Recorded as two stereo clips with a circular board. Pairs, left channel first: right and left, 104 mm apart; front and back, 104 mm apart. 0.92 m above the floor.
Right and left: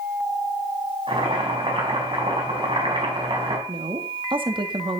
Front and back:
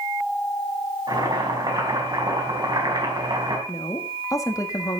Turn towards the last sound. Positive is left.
turn(degrees=55)